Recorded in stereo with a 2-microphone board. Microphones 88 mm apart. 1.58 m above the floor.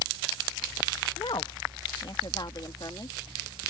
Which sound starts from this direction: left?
A woman speaking, at 1.2 s.